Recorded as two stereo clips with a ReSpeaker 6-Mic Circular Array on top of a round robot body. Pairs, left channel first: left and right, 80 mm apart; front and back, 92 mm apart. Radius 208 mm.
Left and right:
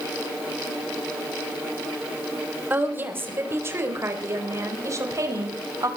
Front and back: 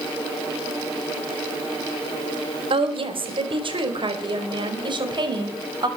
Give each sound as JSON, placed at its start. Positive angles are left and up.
{"t": 2.7, "sound": "a woman speaking", "azimuth_deg": -160, "distance_m": 4.0}